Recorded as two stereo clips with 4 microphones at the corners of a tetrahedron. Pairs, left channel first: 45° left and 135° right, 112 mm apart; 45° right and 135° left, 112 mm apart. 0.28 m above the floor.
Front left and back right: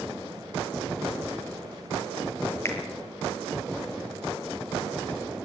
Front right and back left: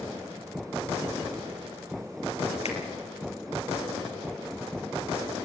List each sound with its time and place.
2.6 s a finger snap: 20° right, 4 m